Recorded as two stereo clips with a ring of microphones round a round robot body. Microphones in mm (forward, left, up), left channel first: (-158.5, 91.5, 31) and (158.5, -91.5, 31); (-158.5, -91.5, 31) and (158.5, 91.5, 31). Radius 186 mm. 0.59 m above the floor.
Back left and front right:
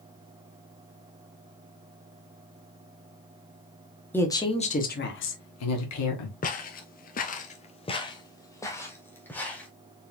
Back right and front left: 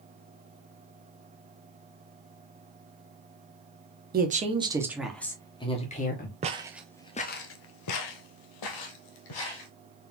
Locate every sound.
4.1 s a woman speaking: 70° left, 1.1 m; by 6.3 s 155° left, 1.5 m
6.4 s footsteps: 95° left, 0.7 m; by 9.7 s 125° right, 1.6 m